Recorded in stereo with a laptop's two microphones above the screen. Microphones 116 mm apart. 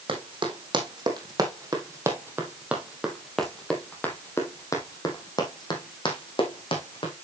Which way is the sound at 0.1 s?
45° right (ahead or behind).